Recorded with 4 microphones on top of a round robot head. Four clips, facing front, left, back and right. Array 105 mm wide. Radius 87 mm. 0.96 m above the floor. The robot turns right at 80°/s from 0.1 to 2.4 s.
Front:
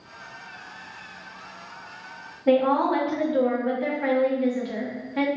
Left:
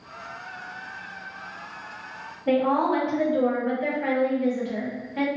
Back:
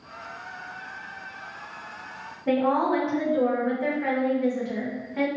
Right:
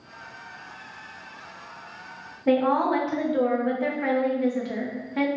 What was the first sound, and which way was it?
A woman speaking, 70° right.